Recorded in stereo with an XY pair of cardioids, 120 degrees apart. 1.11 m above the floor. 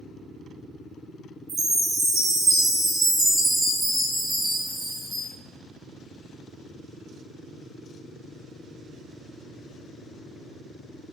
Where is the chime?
40° right, 1.7 m.